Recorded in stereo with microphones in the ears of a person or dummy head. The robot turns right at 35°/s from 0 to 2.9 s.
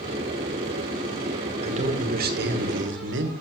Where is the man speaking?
145° right, 1.1 m; by 3.3 s 100° right, 1.1 m.